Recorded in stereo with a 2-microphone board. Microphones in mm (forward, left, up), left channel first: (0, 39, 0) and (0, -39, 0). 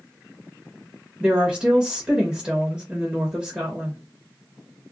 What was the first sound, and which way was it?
A woman speaking, 10° right (ahead or behind).